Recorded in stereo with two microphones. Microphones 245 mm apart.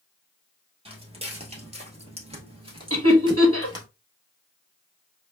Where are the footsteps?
25° right (ahead or behind), 1.3 m; by 3.9 s 15° right (ahead or behind), 1.3 m.